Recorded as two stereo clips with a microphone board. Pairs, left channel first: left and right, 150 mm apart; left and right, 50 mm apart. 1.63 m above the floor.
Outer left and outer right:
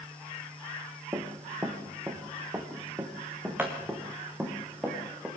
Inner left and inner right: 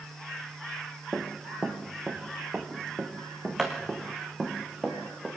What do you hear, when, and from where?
1.1 s running footsteps: 20° right (ahead or behind), 3.5 m; by 5.3 s 10° right (ahead or behind), 5.5 m